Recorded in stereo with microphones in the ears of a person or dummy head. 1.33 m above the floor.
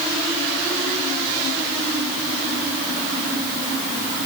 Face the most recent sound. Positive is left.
No sound to turn to.